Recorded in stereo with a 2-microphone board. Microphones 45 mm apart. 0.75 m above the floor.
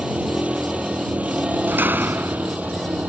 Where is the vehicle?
25° right (ahead or behind); by 3.1 s 35° right (ahead or behind).